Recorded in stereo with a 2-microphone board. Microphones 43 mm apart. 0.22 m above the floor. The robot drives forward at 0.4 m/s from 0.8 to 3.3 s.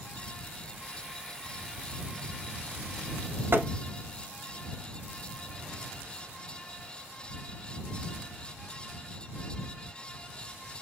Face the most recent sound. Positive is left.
turn(degrees=-60)  # may be behind; listen again after turning